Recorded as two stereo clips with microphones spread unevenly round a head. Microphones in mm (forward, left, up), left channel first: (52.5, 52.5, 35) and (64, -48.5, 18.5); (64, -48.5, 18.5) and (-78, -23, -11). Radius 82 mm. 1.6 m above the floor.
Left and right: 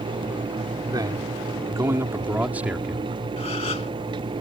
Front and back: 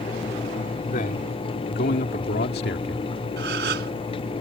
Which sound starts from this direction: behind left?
A gasp, at 3.4 s.